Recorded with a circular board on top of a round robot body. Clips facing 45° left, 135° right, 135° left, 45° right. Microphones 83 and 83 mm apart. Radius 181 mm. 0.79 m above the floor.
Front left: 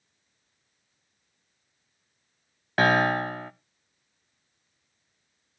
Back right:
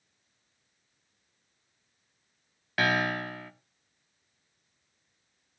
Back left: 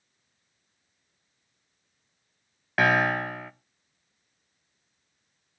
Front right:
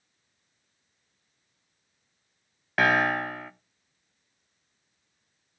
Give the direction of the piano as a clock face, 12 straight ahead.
10 o'clock.